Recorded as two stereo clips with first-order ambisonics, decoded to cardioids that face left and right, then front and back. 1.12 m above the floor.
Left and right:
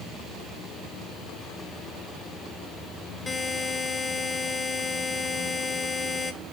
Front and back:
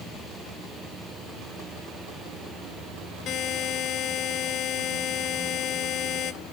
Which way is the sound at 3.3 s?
15° left.